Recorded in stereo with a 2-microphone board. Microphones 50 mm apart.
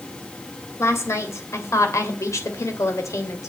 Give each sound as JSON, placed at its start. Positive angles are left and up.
{"t": 0.8, "sound": "a woman speaking", "side_deg": 70, "distance_m": 3.0}